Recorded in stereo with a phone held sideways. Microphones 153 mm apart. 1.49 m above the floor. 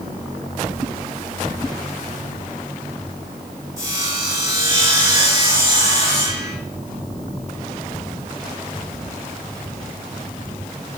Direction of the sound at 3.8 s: 25° right (ahead or behind).